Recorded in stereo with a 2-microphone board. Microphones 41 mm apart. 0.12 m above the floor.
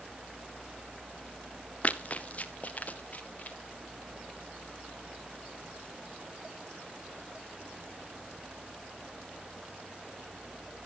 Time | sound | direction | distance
1.8 | running footsteps | 35° left (ahead or behind) | 1.4 m